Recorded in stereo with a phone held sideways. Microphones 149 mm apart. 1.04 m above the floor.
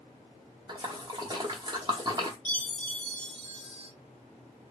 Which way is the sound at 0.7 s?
30° right (ahead or behind).